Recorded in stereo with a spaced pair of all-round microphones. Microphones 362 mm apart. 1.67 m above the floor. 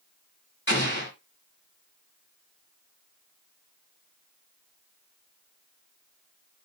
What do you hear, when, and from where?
0.7 s an explosion: 30° left (ahead or behind), 4.5 m